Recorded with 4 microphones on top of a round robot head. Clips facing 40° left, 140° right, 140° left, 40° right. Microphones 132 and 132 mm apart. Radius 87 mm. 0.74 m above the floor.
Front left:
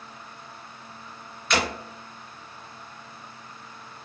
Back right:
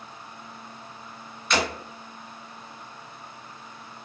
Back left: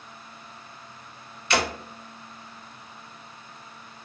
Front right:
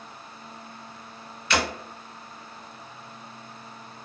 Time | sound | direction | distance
1.5 | breaking glass | 50° right | 1.5 m